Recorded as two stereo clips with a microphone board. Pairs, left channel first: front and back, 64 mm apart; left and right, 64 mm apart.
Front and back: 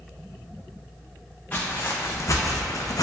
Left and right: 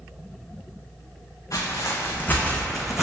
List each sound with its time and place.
1.5 s footsteps: 60° left, 0.8 m; by 3.0 s 10° right, 0.6 m